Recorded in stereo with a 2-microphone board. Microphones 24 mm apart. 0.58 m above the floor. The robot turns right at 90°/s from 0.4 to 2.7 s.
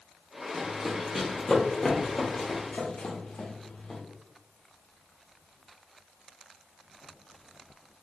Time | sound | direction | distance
0.5 | running footsteps | 35° right (ahead or behind) | 1.4 m